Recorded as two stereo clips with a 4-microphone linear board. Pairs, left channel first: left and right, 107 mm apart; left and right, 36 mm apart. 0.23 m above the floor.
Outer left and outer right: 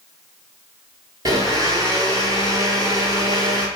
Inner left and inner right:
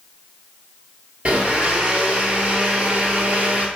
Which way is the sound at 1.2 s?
35° right (ahead or behind).